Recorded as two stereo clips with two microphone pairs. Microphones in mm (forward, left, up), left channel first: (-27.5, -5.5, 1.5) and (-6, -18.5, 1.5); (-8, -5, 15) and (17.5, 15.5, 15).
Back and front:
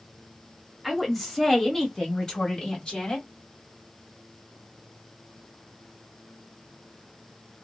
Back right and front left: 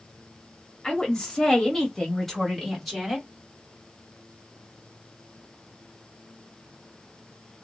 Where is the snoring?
No snoring in this recording.